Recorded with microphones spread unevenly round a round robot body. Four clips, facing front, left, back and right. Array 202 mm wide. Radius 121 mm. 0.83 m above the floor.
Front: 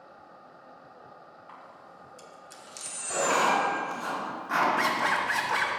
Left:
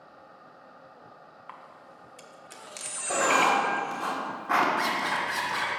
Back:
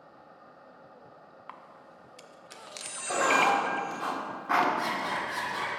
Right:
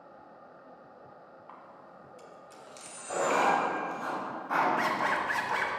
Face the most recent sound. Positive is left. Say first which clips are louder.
# left 1 dB, front 4 dB
turn(degrees=0)